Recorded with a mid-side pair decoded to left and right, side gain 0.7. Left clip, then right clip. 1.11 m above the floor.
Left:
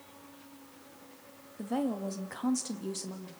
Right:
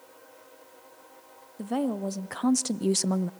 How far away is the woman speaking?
About 1.8 m.